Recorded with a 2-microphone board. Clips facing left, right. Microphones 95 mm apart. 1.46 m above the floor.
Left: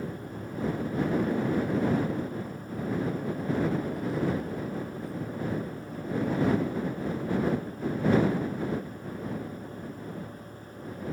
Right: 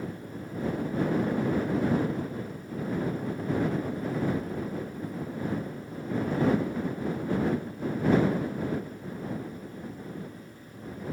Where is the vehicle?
75° left (ahead or behind); by 11.1 s 70° left (ahead or behind).